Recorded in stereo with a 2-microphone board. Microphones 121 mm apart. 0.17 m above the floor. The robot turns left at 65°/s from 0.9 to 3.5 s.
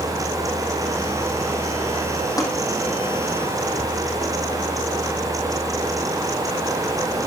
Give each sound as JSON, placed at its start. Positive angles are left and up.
{"t": 2.4, "sound": "tapping", "side_deg": 30, "distance_m": 5.5}